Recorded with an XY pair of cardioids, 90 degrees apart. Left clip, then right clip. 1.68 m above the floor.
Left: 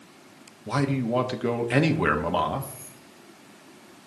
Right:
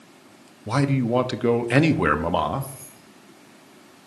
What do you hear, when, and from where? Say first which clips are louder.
0.7 s a man speaking: right 3 dB; 30° right, 0.7 m
2.6 s keys jangling: right 1 dB; 45° right, 3 m